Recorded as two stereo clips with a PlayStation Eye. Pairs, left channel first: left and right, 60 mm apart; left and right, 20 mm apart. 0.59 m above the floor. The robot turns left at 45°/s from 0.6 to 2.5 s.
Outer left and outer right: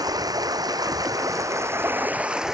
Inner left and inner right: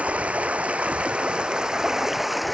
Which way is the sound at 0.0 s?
85° right.